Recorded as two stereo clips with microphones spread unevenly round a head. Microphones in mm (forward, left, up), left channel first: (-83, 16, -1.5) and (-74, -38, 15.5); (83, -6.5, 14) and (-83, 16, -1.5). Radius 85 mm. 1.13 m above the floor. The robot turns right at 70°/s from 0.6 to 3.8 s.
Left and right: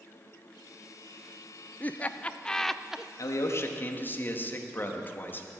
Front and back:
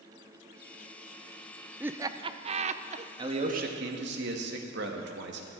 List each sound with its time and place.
1.8 s laughter: 100° left, 0.5 m; by 3.1 s 170° right, 0.5 m
3.2 s a man speaking: 105° left, 1.6 m; by 5.5 s 150° left, 1.6 m